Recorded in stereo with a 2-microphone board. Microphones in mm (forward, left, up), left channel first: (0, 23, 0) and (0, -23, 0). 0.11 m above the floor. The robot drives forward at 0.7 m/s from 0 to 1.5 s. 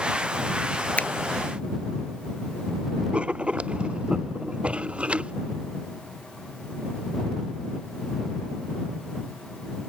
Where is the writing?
25° right (ahead or behind).